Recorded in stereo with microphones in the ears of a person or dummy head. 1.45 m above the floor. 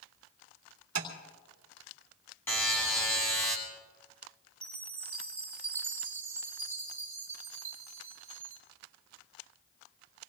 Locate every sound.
0.9 s tapping: 70° right (ahead or behind), 2.5 m
2.5 s a buzzer: 10° left (ahead or behind), 4.5 m
4.6 s a chime: 10° right (ahead or behind), 2.5 m